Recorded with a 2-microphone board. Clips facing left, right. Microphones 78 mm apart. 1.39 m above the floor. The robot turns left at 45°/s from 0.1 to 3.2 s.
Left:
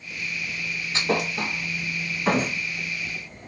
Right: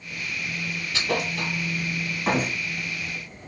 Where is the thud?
25° left (ahead or behind), 1.5 m; by 2.6 s 5° right (ahead or behind), 1.5 m.